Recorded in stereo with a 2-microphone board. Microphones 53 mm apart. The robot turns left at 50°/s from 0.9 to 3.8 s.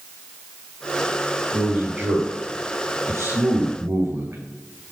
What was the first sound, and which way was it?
A man speaking, 10° left.